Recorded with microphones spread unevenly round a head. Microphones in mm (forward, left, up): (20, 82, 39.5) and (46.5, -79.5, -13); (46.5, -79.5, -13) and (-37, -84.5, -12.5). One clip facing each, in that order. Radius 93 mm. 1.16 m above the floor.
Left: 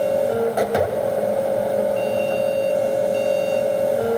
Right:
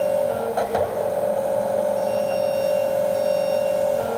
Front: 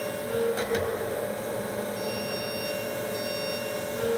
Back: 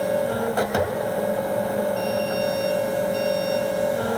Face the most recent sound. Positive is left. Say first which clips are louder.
# left 2 dB, back 5 dB
turn(degrees=150)